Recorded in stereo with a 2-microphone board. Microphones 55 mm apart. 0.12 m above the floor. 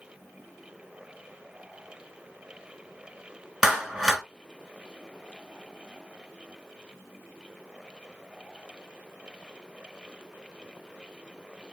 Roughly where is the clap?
Centre.